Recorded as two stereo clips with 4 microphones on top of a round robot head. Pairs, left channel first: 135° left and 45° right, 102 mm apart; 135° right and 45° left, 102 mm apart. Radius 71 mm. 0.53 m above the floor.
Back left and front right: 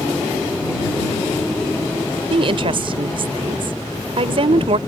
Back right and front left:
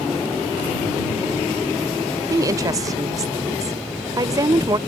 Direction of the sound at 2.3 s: 10° right.